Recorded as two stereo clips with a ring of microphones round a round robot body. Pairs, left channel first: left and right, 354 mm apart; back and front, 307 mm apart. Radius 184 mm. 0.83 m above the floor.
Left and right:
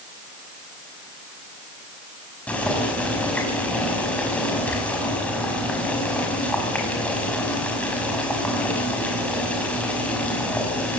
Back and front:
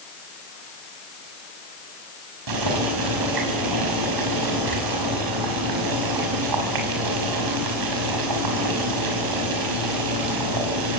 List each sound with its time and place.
2.5 s boiling: 5° left, 5.5 m